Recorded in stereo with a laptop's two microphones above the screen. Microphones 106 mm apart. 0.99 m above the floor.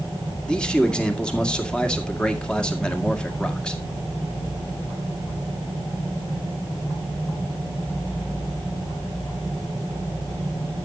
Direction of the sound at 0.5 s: 10° left (ahead or behind).